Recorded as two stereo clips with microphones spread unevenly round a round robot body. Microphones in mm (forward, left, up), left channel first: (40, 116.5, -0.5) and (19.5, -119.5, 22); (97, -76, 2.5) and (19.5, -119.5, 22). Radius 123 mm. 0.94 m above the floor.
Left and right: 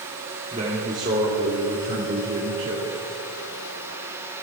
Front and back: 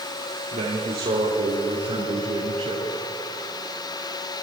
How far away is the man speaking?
About 2 m.